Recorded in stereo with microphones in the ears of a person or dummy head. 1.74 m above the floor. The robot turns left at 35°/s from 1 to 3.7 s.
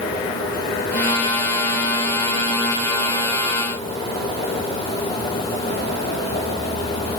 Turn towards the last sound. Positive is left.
No sound to turn to.